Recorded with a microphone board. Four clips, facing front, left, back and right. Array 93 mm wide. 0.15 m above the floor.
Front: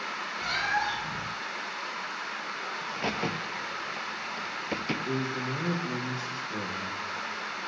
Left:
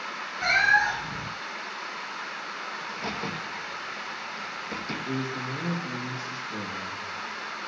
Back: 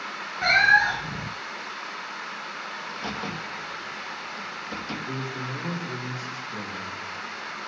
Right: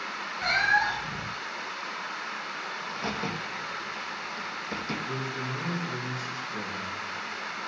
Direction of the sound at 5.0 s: 30° left.